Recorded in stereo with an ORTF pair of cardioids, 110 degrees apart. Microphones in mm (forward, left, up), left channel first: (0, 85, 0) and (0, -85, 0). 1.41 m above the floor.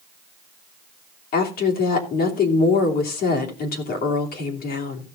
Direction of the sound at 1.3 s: 65° left.